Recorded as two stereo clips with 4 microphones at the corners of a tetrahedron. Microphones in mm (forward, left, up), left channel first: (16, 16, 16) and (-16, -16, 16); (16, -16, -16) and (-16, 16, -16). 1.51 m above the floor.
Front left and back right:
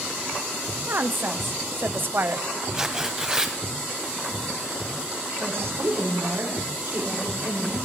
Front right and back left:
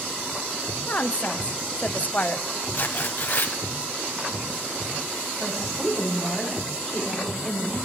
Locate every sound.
0.9 s a woman speaking: 95° right, 0.7 m
2.7 s tearing paper: 65° right, 2.0 m
5.4 s a woman speaking: 135° right, 6.5 m